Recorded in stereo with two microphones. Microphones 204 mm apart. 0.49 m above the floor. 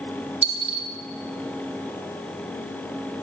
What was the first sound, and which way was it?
A dropped coin, 65° right (ahead or behind).